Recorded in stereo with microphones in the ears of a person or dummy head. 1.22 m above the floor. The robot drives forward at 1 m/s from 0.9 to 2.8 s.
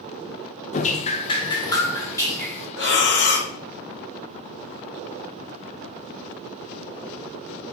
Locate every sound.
0.7 s dripping: 35° left (ahead or behind), 0.7 m; by 2.7 s 10° left (ahead or behind), 2 m
2.8 s breathing: 60° left (ahead or behind), 1.3 m